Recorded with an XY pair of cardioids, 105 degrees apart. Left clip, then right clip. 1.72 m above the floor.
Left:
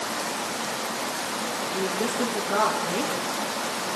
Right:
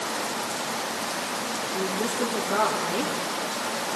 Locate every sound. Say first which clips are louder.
1.7 s a woman speaking: left 1 dB; 5° left, 2.5 m